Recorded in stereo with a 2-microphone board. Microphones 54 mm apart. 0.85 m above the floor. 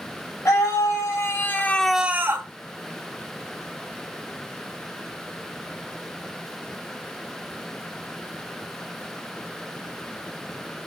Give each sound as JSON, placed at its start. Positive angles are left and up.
{"t": 0.5, "sound": "a scream", "side_deg": 70, "distance_m": 1.6}